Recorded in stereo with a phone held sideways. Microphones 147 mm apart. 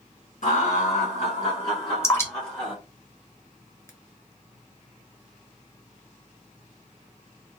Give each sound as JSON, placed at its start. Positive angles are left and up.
{"t": 0.4, "sound": "laughter", "side_deg": 70, "distance_m": 1.7}
{"t": 2.0, "sound": "dripping", "side_deg": 20, "distance_m": 1.1}